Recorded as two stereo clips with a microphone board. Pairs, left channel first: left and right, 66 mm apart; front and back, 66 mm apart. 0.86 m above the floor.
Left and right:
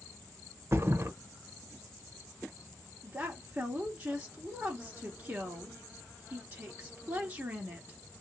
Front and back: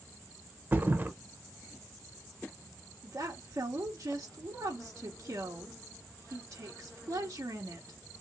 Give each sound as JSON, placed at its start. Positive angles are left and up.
{"t": 0.7, "sound": "a thud", "azimuth_deg": -130, "distance_m": 0.7}
{"t": 3.0, "sound": "a woman speaking", "azimuth_deg": -145, "distance_m": 1.4}